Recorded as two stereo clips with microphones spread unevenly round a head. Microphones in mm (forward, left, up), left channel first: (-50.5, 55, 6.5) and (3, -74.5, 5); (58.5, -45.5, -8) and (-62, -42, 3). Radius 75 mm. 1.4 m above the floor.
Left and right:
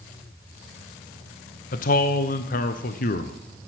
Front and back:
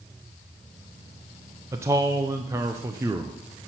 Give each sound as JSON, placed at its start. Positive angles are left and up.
{"t": 1.7, "sound": "a man speaking", "azimuth_deg": 105, "distance_m": 0.7}